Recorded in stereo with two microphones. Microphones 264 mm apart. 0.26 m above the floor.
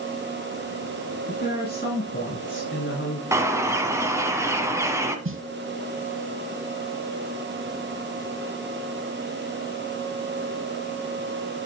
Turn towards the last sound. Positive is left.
turn(degrees=-50)  # may be behind; listen again after turning